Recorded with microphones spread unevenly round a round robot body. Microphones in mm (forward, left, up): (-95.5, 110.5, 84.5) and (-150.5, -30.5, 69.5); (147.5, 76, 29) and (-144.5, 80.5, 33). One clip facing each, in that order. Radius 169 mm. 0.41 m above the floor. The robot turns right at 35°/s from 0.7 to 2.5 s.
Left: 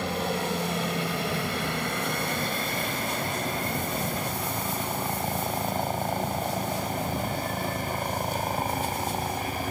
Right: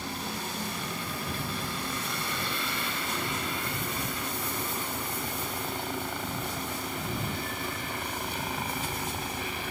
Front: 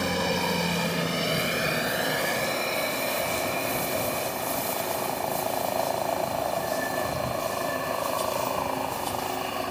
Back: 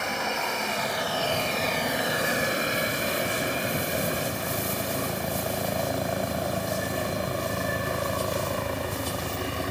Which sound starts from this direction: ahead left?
A helicopter, at 0.0 s.